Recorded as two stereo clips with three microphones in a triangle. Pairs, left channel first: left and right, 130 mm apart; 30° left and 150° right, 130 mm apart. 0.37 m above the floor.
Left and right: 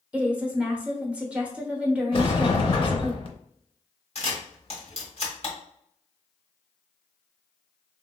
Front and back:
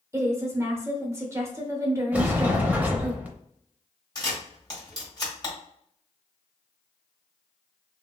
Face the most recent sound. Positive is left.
turn(degrees=80)